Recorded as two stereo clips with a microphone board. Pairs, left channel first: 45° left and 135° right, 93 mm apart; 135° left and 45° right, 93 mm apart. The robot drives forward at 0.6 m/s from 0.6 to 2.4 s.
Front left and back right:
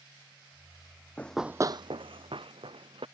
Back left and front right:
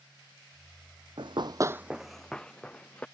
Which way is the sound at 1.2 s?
25° right.